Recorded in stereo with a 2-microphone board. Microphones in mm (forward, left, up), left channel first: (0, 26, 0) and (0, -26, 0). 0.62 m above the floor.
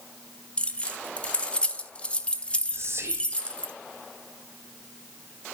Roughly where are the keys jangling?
Left.